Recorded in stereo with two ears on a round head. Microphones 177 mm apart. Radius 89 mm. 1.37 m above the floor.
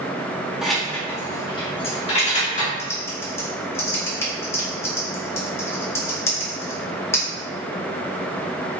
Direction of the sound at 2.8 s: 15° left (ahead or behind).